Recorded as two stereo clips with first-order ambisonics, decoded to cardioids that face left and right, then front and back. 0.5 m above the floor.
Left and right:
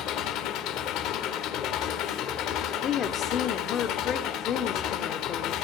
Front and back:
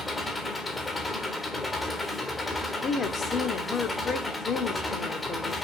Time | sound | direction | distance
0.0 | an engine running | 75° left | 1.4 m
2.8 | a woman speaking | 55° left | 0.9 m